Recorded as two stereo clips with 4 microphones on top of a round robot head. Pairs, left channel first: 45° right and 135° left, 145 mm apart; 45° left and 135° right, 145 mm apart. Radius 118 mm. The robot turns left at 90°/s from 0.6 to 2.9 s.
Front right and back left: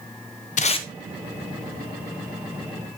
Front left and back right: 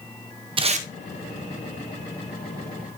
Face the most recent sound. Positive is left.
turn(degrees=70)